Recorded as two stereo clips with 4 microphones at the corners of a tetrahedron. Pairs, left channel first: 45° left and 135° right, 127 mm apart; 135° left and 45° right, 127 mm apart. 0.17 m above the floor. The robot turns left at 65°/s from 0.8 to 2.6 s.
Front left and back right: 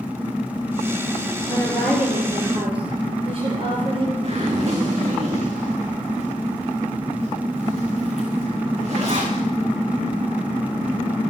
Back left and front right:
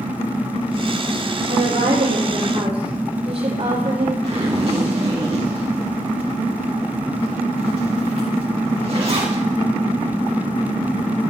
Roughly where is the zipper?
Right.